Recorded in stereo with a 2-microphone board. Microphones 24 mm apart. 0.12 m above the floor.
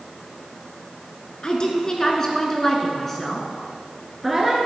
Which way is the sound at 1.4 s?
35° left (ahead or behind).